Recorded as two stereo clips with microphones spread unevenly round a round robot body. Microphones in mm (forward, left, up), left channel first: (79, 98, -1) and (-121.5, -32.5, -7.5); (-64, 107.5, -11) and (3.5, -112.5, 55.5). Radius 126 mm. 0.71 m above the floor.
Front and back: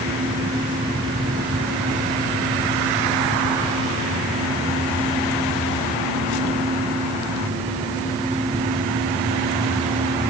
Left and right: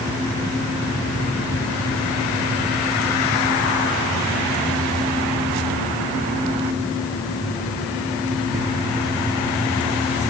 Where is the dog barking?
I don't hear a dog barking.